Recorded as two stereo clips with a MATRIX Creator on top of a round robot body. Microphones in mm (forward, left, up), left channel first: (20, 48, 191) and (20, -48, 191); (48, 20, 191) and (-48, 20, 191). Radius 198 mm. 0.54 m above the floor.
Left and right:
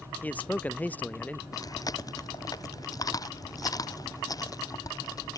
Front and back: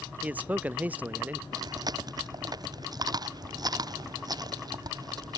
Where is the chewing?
135° left.